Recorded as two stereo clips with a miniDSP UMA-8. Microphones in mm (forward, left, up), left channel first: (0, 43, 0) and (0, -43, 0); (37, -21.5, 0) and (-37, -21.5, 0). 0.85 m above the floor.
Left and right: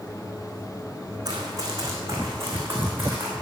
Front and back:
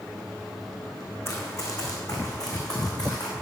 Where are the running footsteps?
50° right, 3 m; by 3.3 s 20° right, 4 m.